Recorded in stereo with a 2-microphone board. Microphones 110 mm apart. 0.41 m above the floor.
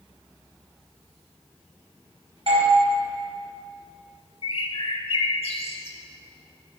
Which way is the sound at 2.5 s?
60° right (ahead or behind).